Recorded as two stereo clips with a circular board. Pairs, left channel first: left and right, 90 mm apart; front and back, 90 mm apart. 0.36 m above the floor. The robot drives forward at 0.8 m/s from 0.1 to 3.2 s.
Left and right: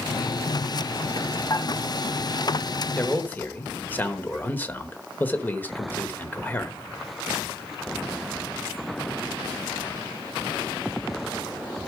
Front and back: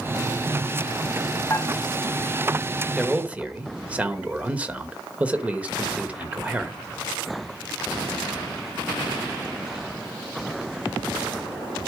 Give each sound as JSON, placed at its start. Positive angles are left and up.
{"t": 1.5, "sound": "dishes clattering", "azimuth_deg": 50, "distance_m": 1.6}
{"t": 3.0, "sound": "a man speaking", "azimuth_deg": 100, "distance_m": 1.0}